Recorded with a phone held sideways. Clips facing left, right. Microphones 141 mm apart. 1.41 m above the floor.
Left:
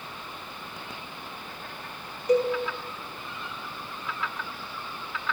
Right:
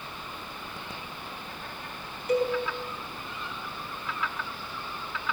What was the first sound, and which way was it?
A cowbell, 40° left (ahead or behind).